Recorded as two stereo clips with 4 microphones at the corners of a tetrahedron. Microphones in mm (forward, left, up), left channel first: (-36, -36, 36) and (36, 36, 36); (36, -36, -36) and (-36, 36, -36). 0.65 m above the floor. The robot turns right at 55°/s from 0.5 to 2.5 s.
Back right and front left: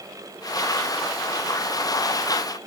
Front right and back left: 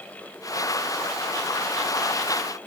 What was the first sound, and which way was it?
Only background noise.